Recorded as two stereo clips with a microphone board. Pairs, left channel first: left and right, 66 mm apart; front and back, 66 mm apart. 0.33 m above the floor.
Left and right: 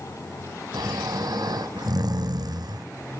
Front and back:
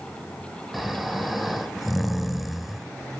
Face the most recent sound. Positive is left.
turn(degrees=-95)